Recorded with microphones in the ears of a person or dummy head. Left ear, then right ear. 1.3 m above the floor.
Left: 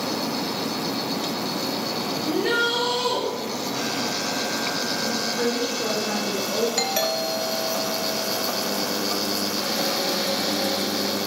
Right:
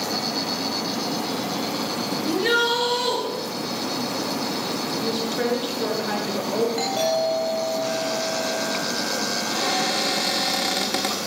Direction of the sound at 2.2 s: 30° right (ahead or behind).